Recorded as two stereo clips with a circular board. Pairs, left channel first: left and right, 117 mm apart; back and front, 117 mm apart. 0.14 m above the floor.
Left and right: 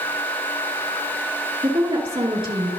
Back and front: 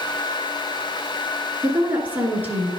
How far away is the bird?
I don't hear a bird.